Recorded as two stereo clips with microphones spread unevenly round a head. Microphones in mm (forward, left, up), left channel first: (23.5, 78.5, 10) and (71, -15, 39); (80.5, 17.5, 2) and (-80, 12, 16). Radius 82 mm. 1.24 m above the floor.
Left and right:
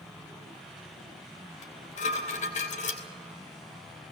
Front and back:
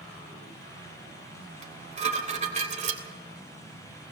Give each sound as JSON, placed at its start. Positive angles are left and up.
{"t": 1.6, "sound": "dishes clattering", "azimuth_deg": 135, "distance_m": 3.0}